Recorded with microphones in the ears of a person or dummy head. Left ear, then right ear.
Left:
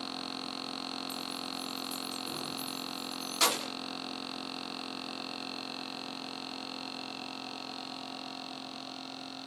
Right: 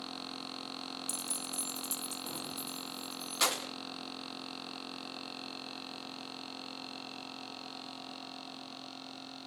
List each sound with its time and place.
1.1 s keys jangling: 60° right (ahead or behind), 0.6 m; by 3.7 s 10° right (ahead or behind), 1.8 m